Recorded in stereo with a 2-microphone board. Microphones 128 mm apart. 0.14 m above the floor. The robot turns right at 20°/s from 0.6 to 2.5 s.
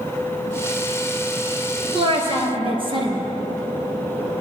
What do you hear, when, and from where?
1.9 s a woman speaking: 50° right (ahead or behind), 2 m; by 3.2 s 45° right (ahead or behind), 2 m